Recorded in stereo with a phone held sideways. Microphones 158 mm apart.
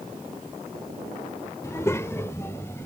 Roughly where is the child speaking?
Centre.